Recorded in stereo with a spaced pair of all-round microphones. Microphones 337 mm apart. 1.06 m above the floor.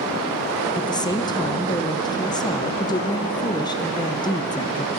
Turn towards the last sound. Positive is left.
turn(degrees=10)  # may be behind; listen again after turning